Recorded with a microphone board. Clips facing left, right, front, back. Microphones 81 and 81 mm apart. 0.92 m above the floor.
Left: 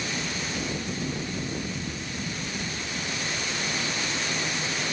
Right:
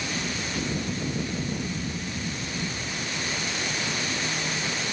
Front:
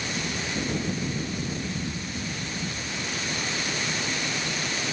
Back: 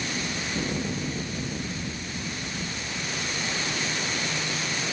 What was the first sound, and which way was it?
Only background noise.